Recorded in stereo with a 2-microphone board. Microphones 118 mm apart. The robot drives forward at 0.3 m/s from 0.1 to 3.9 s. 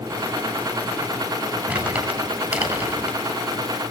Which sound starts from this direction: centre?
Crumpling, at 1.7 s.